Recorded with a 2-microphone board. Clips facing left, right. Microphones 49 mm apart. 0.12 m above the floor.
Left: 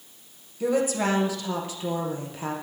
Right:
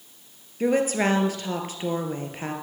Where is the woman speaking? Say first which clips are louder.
Right 2 dB; 50° right (ahead or behind), 2 m.